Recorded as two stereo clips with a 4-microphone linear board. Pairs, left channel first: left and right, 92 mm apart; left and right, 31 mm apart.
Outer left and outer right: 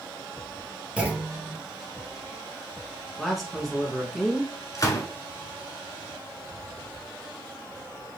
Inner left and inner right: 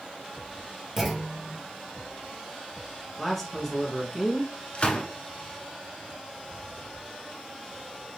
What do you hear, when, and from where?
1.0 s a clunk: 10° right (ahead or behind), 1.1 m
3.2 s a man speaking: centre (ahead or behind), 1.4 m
4.8 s a gunshot: 40° left (ahead or behind), 1.0 m